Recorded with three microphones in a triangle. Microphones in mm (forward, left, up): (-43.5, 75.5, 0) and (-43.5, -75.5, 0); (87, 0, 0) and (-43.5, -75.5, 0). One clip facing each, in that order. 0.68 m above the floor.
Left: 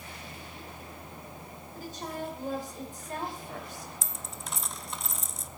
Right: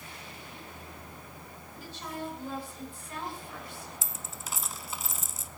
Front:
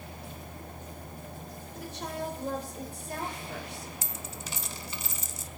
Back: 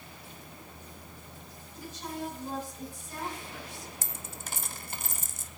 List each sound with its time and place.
1.8 s a woman speaking: 45° left, 3 m
4.0 s a dropped coin: 175° right, 0.6 m